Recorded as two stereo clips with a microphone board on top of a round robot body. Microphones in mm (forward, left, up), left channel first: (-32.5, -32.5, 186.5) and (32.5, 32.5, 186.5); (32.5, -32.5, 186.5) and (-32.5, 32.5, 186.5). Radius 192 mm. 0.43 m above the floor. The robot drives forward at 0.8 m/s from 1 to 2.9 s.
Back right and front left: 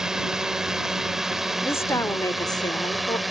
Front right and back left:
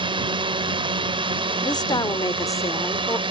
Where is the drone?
130° left; by 3.3 s 135° left.